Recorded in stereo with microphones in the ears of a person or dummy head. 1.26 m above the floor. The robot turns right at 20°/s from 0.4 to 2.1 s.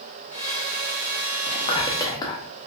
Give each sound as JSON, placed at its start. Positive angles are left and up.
{"t": 1.5, "sound": "whispering", "side_deg": 30, "distance_m": 0.7}